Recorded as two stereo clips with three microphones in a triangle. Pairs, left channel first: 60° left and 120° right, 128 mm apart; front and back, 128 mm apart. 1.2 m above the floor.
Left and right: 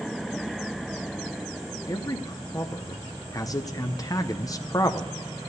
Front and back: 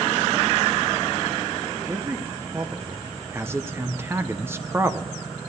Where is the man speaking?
115° left, 0.8 m.